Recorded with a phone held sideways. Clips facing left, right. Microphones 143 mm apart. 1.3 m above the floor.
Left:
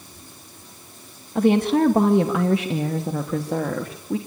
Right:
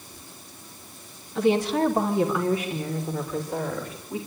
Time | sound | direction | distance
1.4 | a woman speaking | 50° left (ahead or behind) | 1.5 m